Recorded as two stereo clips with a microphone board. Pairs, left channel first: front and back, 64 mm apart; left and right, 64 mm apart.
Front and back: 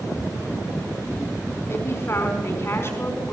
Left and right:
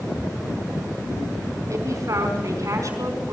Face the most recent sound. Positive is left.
turn(degrees=-50)